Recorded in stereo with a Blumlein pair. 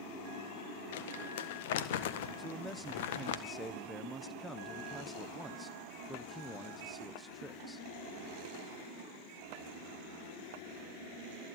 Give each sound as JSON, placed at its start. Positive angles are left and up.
{"t": 0.9, "sound": "crumpling", "azimuth_deg": 55, "distance_m": 1.5}
{"t": 2.4, "sound": "a man speaking", "azimuth_deg": 0, "distance_m": 1.2}